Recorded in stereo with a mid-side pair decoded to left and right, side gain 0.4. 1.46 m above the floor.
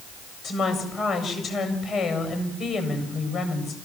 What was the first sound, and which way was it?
A woman speaking, 60° left.